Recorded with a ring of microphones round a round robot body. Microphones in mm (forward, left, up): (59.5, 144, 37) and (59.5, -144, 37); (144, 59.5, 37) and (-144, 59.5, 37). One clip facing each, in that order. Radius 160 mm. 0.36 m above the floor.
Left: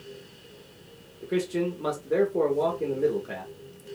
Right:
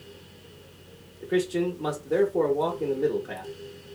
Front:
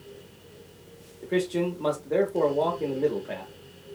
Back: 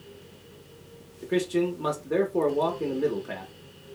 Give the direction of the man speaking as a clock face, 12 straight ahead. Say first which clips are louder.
Right 2 dB, back 1 dB; 7 o'clock.